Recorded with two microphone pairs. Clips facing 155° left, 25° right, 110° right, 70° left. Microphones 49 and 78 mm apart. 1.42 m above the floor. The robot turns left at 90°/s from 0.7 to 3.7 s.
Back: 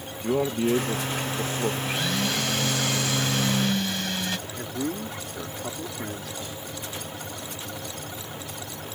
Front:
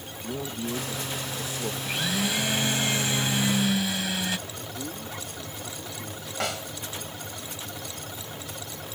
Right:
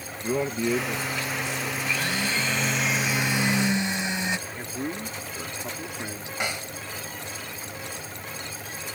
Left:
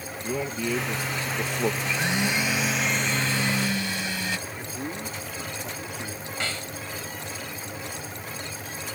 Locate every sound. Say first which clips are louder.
0.2 s a man speaking: back 9 dB, right 3 dB; straight behind; by 1.7 s 90° left
1.8 s a blender: back 1 dB, left 2 dB; 75° left; by 4.4 s 95° right
4.5 s a man speaking: back 6 dB, right 2 dB; straight behind
6.4 s a snare drum: front 6 dB, right 2 dB; 35° right